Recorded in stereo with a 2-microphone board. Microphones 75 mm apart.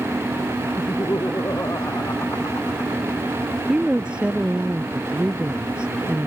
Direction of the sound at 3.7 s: 15° right (ahead or behind).